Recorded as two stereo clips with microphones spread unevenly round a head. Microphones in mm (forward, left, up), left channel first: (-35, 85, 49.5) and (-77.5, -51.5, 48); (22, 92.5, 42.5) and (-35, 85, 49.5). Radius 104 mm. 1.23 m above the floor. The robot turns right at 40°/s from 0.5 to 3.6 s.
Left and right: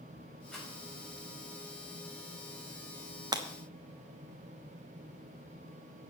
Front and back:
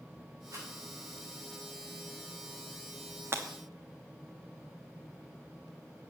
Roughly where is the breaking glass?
Behind.